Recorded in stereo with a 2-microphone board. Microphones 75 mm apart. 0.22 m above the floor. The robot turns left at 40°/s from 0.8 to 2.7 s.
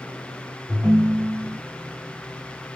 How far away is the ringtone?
About 0.7 m.